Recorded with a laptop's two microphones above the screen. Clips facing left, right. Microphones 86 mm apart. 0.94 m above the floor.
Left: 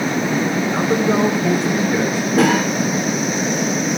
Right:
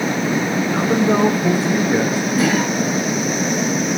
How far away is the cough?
About 3 m.